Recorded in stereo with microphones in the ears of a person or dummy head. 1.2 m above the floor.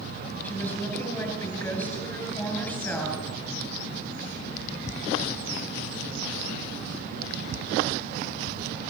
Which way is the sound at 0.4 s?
10° left (ahead or behind).